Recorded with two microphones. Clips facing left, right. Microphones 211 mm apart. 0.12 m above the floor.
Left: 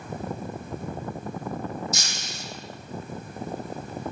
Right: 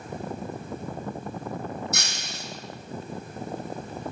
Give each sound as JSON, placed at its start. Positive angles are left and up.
{"t": 1.9, "sound": "breaking glass", "side_deg": -65, "distance_m": 3.5}